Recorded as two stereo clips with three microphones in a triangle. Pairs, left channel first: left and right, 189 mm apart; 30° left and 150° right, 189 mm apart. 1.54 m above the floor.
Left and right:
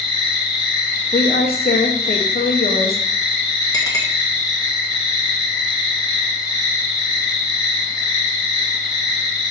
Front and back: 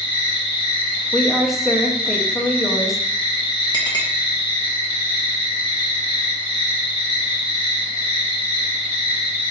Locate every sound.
0.0 s an insect: 155° left, 1.3 m
1.1 s a woman speaking: 120° left, 0.7 m
3.7 s a clink: 50° left, 0.8 m